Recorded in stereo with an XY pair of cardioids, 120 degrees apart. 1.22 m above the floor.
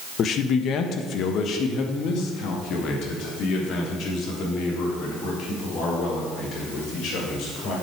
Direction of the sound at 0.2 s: 55° left.